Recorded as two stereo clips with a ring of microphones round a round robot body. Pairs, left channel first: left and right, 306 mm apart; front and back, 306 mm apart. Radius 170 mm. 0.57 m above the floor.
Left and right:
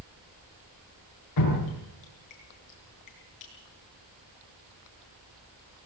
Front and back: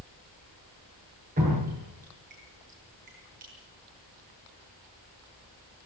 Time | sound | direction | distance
1.4 | dripping | 115° left | 8 m